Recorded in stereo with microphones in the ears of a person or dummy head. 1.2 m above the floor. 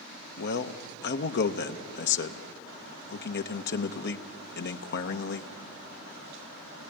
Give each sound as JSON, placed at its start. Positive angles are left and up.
{"t": 0.4, "sound": "a man speaking", "side_deg": 50, "distance_m": 0.9}